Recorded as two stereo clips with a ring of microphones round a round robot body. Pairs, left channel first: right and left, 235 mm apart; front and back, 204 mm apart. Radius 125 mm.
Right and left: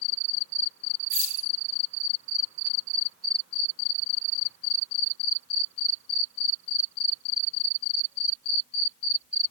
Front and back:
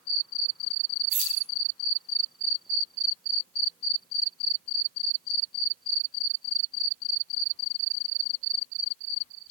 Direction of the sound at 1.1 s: 130° left.